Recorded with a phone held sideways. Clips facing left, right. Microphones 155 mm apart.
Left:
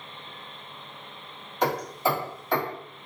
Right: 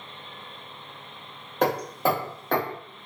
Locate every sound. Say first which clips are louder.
1.6 s hammering: right 2 dB; 60° right (ahead or behind), 1.6 m